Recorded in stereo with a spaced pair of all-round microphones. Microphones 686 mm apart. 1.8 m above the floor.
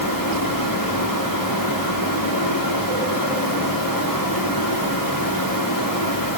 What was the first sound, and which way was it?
A fan, 30° left (ahead or behind).